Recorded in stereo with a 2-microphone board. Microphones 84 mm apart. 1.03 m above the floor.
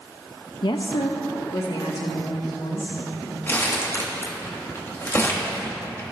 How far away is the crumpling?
About 1.9 m.